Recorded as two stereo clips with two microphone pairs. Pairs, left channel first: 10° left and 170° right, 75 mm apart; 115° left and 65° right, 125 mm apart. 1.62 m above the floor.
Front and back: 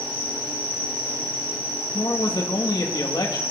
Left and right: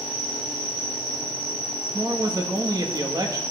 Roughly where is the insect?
Ahead right.